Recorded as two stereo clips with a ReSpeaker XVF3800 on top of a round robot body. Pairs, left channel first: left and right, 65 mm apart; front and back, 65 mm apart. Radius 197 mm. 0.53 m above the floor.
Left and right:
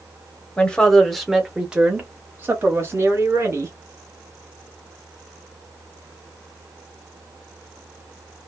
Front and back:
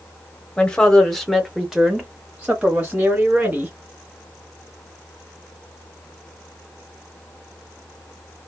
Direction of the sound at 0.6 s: 45° left.